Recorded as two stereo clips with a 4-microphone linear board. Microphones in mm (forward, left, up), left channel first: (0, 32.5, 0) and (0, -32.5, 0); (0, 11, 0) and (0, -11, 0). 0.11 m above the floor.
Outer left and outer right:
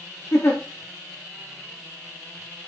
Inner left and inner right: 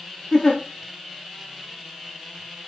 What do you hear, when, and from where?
0.3 s a giggle: 45° left (ahead or behind), 4.5 m